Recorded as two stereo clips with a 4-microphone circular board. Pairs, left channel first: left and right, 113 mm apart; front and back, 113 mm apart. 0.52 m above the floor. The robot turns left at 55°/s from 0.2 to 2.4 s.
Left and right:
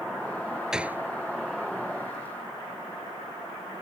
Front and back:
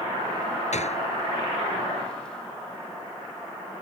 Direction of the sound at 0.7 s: 5° right.